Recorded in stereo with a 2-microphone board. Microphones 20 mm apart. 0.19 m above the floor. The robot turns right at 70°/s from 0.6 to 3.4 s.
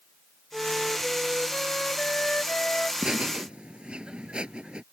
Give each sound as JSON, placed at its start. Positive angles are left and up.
{"t": 0.5, "sound": "a flute", "azimuth_deg": -35}
{"t": 3.0, "sound": "laughter", "side_deg": -45}